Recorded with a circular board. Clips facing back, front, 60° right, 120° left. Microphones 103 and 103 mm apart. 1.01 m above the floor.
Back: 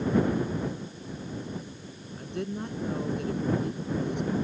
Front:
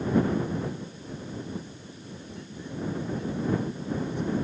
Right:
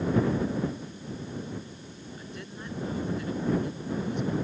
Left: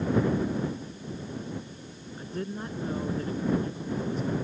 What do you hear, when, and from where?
2.2 s a woman speaking: 170° left